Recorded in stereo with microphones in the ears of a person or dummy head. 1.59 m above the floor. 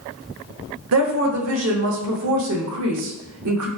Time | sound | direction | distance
0.9 | a woman speaking | 80° right | 0.7 m